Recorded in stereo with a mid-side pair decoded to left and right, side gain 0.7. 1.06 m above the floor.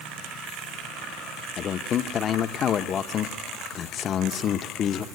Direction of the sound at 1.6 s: 40° left.